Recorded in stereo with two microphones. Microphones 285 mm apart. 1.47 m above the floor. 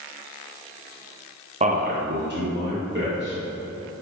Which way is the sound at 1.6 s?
25° right (ahead or behind).